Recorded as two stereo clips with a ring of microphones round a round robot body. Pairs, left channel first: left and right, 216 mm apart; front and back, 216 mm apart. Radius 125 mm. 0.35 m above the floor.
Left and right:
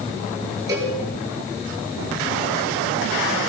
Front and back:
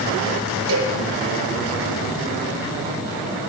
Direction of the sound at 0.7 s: 165° right.